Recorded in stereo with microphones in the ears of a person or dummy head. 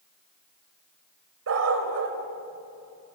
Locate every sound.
1.5 s a dog barking: 75° right (ahead or behind), 3 m